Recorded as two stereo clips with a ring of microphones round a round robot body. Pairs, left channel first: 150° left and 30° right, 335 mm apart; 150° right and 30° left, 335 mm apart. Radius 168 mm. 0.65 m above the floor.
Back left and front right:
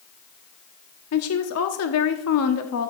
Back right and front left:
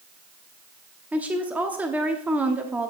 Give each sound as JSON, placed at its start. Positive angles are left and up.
{"t": 1.1, "sound": "a woman speaking", "azimuth_deg": 115, "distance_m": 1.1}